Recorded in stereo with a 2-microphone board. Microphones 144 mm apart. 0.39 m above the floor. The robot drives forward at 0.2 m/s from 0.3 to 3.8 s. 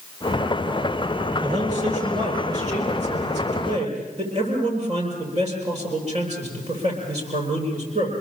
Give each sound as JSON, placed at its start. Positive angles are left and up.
{"t": 1.4, "sound": "a man speaking", "side_deg": -50, "distance_m": 8.5}